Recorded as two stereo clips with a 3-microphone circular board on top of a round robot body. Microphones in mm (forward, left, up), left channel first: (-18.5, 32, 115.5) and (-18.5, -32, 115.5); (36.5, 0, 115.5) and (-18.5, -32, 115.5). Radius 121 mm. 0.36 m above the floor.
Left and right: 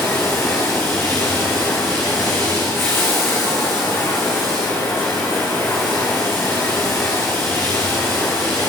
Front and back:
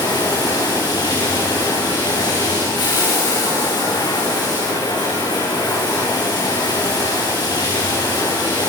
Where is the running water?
35° left, 7 m.